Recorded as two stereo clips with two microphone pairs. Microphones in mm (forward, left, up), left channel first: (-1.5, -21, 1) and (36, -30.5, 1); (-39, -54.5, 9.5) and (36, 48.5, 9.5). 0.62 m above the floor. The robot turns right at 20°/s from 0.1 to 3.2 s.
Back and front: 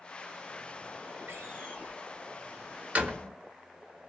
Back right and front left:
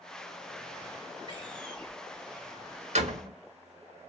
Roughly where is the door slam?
Ahead.